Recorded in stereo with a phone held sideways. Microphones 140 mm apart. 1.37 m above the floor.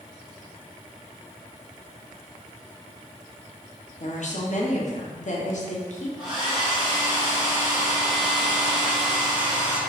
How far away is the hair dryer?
About 1.2 m.